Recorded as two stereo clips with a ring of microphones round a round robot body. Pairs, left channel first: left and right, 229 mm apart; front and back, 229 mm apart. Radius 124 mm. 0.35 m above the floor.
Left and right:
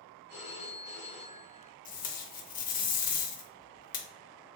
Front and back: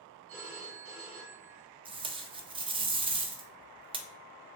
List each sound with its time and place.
0.3 s a phone ringing: 170° right, 1.1 m
1.9 s tape being pulled: 125° left, 0.6 m